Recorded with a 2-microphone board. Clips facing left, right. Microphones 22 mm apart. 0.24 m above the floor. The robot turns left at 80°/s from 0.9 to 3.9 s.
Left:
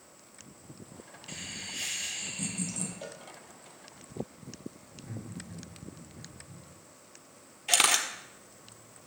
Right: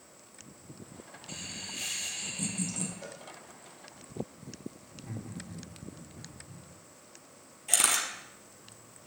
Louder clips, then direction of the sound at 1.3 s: Left 1 dB; 115° left.